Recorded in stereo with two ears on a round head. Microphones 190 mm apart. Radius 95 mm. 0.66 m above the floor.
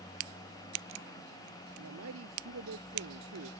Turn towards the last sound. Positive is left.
turn(degrees=-85)